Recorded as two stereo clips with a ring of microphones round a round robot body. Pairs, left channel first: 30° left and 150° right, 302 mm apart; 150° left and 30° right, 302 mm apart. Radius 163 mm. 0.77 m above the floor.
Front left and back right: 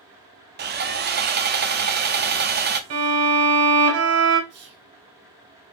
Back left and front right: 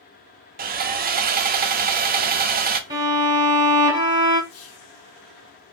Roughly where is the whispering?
Behind.